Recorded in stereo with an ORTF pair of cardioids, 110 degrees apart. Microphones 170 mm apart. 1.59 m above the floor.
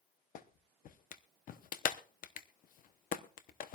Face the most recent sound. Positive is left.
turn(degrees=55)